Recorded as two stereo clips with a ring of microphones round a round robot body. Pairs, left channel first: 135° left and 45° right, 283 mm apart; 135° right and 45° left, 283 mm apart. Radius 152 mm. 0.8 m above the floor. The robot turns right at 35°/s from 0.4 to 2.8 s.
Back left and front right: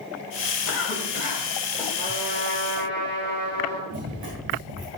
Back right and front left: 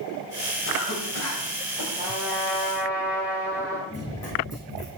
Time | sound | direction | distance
0.7 | a cough | straight behind | 4 m
2.0 | a trumpet | 105° right | 5.5 m
3.9 | running footsteps | 55° right | 5.5 m